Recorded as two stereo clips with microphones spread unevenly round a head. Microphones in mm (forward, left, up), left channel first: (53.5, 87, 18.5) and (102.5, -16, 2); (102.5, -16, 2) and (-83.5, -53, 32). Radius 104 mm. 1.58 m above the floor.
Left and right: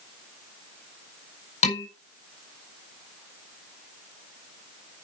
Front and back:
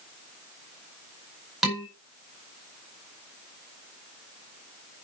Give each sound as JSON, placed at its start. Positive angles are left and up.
{"t": 1.6, "sound": "dishes clattering", "azimuth_deg": 105, "distance_m": 5.0}